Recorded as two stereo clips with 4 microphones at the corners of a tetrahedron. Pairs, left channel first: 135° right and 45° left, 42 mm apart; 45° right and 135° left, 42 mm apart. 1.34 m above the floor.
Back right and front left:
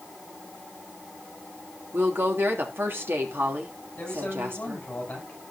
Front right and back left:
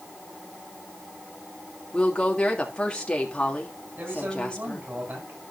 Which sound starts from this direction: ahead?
A woman speaking, at 1.9 s.